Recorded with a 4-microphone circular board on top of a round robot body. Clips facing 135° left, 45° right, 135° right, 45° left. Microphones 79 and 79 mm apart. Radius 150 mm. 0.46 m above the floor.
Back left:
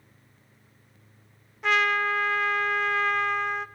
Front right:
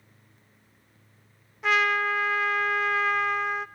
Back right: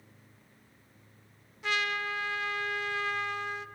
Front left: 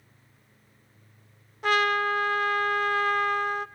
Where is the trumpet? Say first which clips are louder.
Even, front left 9 dB; 40° left, 0.5 m.